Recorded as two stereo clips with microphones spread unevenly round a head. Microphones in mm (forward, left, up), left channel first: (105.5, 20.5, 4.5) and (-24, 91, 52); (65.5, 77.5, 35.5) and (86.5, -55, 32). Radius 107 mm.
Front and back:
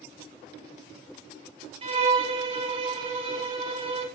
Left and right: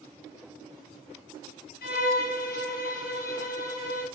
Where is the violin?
105° left, 4 m.